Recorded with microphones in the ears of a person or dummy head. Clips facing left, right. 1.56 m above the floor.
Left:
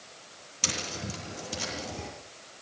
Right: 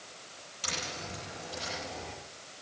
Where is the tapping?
60° left (ahead or behind), 9 m.